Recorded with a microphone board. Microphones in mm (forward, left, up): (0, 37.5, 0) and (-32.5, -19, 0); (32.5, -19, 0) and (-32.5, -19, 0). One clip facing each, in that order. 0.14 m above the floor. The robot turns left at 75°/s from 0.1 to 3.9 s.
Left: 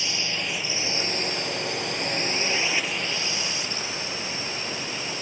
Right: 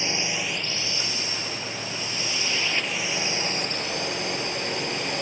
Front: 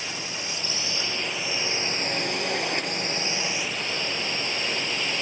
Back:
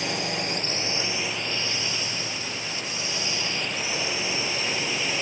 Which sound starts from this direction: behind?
A drone, at 0.0 s.